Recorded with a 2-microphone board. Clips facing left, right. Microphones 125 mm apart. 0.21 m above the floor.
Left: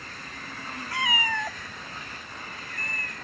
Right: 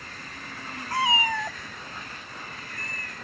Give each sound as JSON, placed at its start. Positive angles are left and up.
{"t": 0.9, "sound": "a cat meowing", "side_deg": -45}